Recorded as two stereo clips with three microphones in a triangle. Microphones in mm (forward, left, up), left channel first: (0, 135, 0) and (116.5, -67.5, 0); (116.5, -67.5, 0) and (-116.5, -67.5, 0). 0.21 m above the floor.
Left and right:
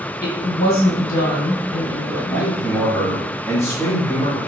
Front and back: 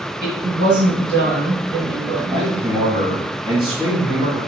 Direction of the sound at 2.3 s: Straight behind.